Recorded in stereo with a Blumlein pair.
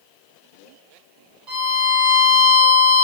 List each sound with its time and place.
1.5 s a violin: 20° right, 1.6 m